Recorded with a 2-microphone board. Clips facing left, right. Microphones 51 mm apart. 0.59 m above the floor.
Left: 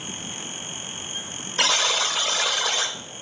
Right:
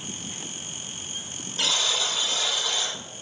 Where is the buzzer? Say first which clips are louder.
Left 4 dB; 75° left (ahead or behind), 1.3 m.